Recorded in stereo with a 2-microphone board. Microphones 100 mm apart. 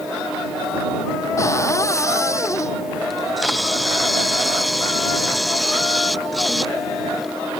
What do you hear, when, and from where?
1.4 s a cupboard door: 30° left (ahead or behind)
3.1 s a camera shutter: centre (ahead or behind)